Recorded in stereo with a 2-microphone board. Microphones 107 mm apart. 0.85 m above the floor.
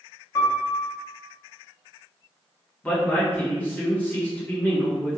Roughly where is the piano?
Left.